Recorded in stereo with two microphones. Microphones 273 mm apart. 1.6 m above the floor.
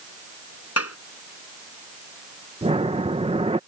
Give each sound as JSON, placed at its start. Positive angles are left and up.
{"t": 0.8, "sound": "a clap", "side_deg": 60}
{"t": 2.6, "sound": "breathing", "side_deg": -20}